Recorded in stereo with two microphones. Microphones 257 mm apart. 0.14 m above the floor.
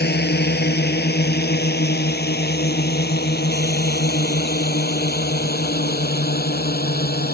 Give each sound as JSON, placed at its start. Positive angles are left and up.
{"t": 0.0, "sound": "a drone", "side_deg": 40}